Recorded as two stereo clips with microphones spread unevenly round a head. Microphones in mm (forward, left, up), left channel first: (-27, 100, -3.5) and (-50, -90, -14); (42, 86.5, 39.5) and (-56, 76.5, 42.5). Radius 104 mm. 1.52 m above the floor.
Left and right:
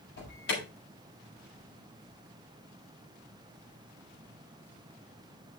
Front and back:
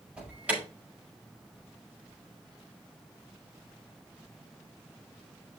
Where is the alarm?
110° left, 5 m.